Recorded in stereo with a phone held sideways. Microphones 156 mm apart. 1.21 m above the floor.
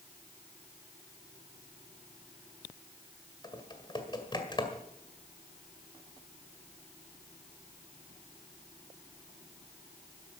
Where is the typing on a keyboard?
30° left (ahead or behind), 2.0 m.